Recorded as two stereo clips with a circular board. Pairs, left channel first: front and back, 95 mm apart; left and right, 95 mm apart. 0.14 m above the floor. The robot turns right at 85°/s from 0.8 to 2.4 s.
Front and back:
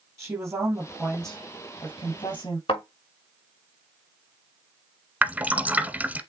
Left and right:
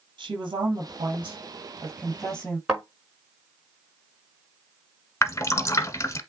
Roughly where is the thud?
Ahead.